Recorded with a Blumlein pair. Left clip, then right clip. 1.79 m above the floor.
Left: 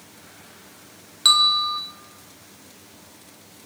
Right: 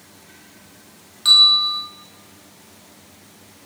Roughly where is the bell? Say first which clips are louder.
Right 5 dB; ahead.